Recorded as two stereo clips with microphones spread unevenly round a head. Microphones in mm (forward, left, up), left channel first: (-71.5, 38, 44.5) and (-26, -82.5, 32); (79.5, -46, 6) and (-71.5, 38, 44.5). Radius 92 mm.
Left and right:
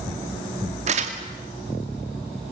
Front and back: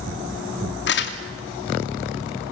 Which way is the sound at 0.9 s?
30° right.